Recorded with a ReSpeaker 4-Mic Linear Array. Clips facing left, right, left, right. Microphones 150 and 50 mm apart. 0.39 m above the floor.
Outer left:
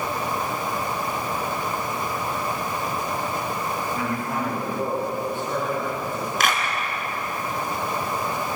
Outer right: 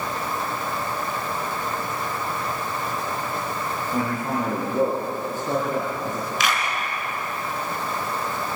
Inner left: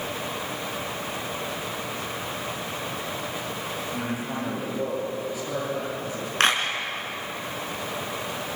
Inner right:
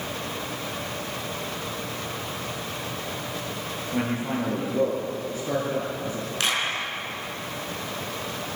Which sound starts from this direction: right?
A man speaking, at 3.9 s.